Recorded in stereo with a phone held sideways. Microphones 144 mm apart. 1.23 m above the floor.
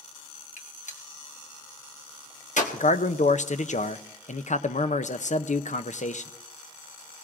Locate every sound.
0.6 s a gunshot: 60° left (ahead or behind), 1.2 m
2.7 s a man speaking: 55° left (ahead or behind), 0.6 m